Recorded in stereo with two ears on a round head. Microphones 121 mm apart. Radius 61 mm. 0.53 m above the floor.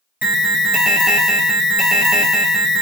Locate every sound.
0.2 s an alarm: 5° right (ahead or behind), 0.9 m